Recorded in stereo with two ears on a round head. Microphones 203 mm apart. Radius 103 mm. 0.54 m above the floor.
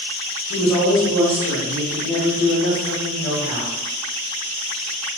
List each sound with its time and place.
0.5 s a woman speaking: 5° left (ahead or behind), 0.9 m; by 3.7 s 30° right (ahead or behind), 1.7 m